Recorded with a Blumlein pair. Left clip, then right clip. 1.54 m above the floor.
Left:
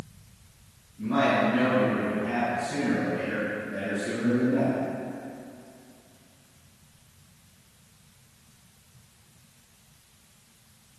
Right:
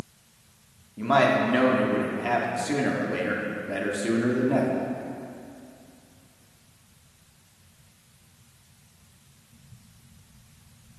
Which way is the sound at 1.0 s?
40° right.